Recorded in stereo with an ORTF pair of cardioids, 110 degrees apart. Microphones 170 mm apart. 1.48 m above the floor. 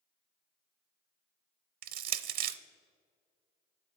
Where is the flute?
No flute in this recording.